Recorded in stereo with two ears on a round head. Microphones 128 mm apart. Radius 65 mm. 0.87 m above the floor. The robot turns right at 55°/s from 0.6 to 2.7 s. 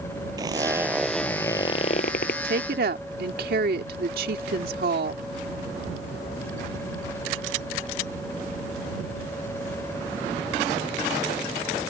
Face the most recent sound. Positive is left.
turn(degrees=-75)  # may be behind; listen again after turning